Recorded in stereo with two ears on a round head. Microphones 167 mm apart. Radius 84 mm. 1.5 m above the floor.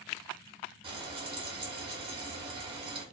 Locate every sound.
0.8 s frying: 30° right (ahead or behind), 1.2 m